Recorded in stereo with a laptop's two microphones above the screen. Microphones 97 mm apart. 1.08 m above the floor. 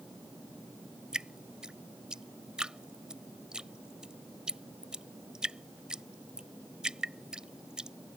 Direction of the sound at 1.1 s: 5° right (ahead or behind).